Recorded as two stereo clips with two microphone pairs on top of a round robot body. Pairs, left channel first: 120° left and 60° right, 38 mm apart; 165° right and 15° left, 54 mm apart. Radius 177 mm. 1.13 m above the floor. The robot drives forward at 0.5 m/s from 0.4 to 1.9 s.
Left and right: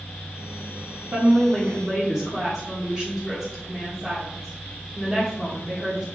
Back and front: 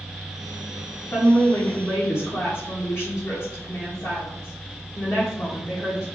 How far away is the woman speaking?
About 0.8 m.